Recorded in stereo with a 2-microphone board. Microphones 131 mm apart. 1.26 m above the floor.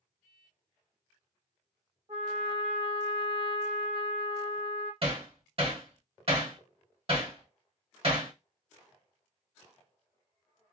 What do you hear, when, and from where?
2.1 s a trumpet: 40° right (ahead or behind), 1.2 m
5.0 s hammering: 45° right (ahead or behind), 1.3 m